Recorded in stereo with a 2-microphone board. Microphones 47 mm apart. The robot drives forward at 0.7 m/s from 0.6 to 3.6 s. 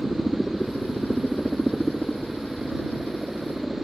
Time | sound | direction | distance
0.0 | a helicopter | 10° right (ahead or behind) | ?